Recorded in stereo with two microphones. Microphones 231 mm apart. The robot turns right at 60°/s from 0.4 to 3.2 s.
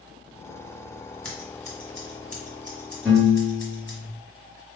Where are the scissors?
5° left (ahead or behind), 1.3 m; by 4.0 s 60° left (ahead or behind), 1.3 m.